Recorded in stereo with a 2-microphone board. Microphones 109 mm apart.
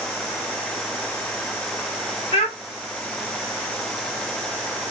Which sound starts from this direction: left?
A child speaking, at 2.3 s.